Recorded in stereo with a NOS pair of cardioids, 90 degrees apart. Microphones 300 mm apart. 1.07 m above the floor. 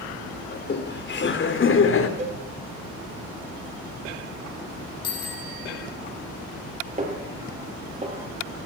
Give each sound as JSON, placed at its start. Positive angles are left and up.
{"t": 0.5, "sound": "laughter", "azimuth_deg": 35, "distance_m": 4.0}
{"t": 2.2, "sound": "a cowbell", "azimuth_deg": -20, "distance_m": 2.0}
{"t": 5.0, "sound": "a bicycle bell", "azimuth_deg": 55, "distance_m": 7.5}
{"t": 7.0, "sound": "a snare drum", "azimuth_deg": -25, "distance_m": 5.5}